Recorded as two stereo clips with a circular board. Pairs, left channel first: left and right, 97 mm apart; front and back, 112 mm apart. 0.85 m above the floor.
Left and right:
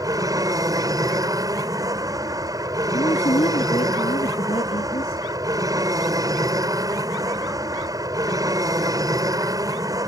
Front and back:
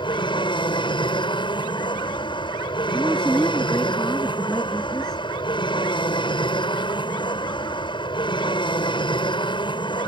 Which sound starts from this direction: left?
A man speaking, at 2.9 s.